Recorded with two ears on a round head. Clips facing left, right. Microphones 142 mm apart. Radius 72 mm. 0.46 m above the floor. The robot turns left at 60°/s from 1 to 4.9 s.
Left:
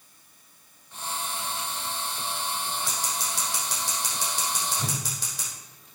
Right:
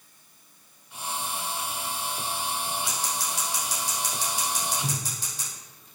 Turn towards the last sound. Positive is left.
turn(degrees=65)  # may be behind; listen again after turning